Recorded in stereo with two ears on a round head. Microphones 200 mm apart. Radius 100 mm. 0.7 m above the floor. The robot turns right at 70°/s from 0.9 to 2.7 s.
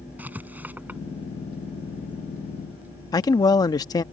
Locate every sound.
0.2 s writing: 10° right (ahead or behind); by 1.0 s centre (ahead or behind)
3.1 s a man speaking: 15° left (ahead or behind)